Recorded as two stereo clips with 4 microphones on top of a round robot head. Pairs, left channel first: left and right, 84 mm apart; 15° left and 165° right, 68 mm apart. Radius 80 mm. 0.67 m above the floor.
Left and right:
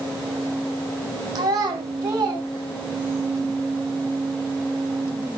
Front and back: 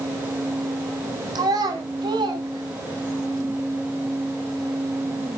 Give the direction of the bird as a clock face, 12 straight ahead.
I don't hear a bird.